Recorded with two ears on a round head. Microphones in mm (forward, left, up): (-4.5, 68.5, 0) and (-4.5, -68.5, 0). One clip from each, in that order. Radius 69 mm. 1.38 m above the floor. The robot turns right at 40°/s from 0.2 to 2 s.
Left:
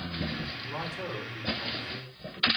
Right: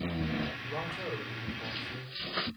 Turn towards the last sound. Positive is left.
turn(degrees=-140)